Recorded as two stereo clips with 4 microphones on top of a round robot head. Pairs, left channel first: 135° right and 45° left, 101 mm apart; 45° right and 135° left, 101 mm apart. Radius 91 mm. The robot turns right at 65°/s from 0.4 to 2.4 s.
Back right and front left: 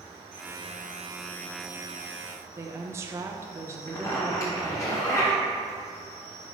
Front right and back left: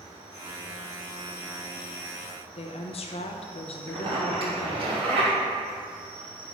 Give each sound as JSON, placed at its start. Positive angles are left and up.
{"t": 0.0, "sound": "an insect", "azimuth_deg": 85, "distance_m": 2.0}
{"t": 2.5, "sound": "a woman speaking", "azimuth_deg": -20, "distance_m": 0.9}
{"t": 3.9, "sound": "a zipper", "azimuth_deg": 165, "distance_m": 3.0}